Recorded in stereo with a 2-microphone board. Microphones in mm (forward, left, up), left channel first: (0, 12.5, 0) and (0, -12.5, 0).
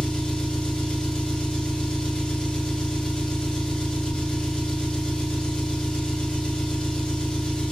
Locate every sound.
0.0 s an engine running: 45° left (ahead or behind), 2.5 m